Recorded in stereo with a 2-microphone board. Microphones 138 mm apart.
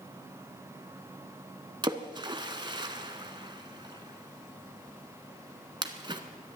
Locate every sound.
1.8 s a splash: 30° right (ahead or behind), 1.3 m